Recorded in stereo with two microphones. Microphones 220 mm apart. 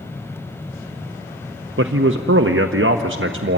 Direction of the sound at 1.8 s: 65° right (ahead or behind).